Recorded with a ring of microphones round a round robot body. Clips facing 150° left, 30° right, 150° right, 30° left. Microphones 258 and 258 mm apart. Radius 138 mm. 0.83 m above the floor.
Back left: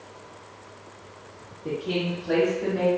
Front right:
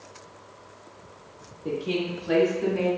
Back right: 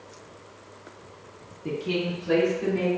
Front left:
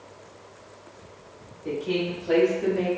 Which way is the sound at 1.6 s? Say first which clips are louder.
Even, front left 1 dB; 120° right.